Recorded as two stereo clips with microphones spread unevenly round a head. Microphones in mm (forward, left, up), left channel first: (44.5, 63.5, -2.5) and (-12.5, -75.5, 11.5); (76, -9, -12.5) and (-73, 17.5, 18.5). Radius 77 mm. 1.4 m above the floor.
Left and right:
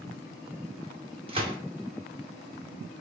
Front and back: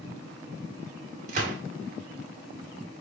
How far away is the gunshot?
About 1.2 m.